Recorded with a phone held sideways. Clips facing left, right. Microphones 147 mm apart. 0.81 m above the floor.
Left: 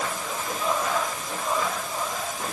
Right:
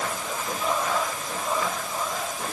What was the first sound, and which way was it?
Only background noise.